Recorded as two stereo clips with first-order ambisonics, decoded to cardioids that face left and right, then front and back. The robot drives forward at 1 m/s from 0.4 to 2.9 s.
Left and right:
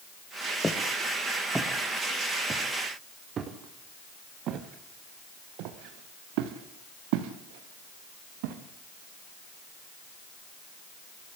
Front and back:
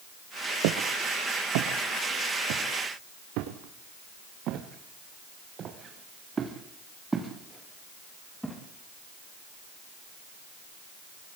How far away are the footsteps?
About 3 m.